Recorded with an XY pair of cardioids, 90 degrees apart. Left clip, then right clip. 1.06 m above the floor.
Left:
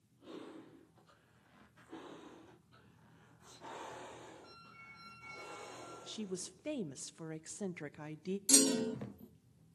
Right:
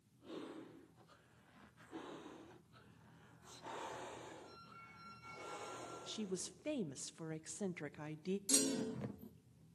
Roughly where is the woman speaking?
Ahead.